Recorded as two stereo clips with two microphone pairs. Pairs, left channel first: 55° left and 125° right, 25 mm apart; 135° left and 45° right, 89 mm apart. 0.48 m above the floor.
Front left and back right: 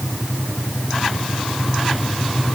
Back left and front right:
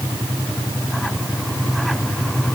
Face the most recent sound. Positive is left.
No sound to turn to.